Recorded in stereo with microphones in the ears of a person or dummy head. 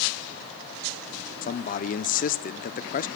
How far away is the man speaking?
About 0.5 m.